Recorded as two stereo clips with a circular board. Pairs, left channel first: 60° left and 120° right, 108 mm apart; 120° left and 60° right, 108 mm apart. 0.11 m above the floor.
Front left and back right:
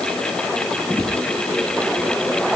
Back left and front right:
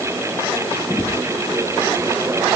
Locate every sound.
Only background noise.